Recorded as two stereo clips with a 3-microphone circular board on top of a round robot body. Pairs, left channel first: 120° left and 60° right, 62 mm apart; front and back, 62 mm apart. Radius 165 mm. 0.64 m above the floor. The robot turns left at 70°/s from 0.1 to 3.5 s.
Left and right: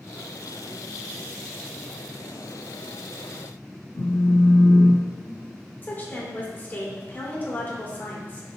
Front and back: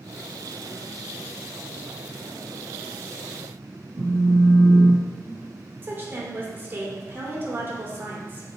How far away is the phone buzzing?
About 1.7 m.